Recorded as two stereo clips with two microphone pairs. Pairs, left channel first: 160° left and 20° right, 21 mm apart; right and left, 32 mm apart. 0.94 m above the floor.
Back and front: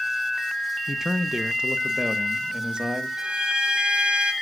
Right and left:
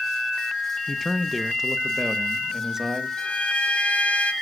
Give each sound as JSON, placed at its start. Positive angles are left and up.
{"t": 0.9, "sound": "a man speaking", "azimuth_deg": -25, "distance_m": 0.8}
{"t": 3.2, "sound": "a violin", "azimuth_deg": -45, "distance_m": 1.3}